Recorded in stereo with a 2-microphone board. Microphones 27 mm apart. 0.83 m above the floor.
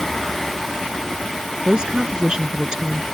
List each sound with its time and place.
1.6 s a woman speaking: 30° right (ahead or behind)